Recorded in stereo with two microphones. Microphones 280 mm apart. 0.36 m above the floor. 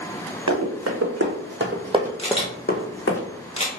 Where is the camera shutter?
20° left (ahead or behind), 0.9 m.